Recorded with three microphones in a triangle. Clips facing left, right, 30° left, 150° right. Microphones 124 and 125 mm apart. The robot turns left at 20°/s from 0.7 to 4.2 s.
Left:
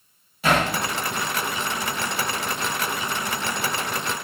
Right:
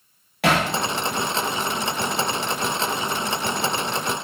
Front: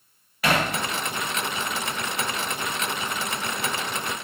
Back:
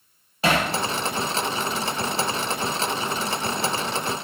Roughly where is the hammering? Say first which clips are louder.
Right 1 dB, back 1 dB; right.